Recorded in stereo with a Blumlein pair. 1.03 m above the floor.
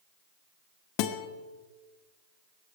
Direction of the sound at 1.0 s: 45° left.